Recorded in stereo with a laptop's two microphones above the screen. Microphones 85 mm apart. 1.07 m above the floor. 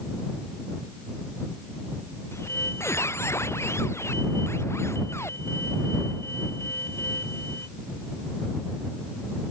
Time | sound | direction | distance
2.3 | a squeak | 30° left (ahead or behind) | ?